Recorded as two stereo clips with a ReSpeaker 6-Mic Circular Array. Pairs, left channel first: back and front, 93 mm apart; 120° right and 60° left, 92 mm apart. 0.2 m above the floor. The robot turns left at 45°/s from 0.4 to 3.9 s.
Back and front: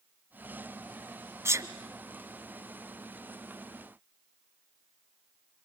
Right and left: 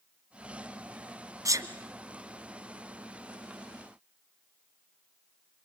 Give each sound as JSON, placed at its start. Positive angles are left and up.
{"t": 1.4, "sound": "a sneeze", "azimuth_deg": 40, "distance_m": 1.3}